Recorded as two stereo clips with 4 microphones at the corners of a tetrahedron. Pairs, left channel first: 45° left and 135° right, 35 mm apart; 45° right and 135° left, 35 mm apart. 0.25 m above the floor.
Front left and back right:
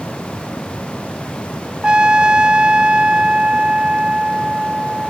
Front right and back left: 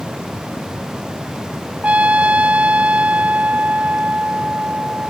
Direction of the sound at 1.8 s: 170° left.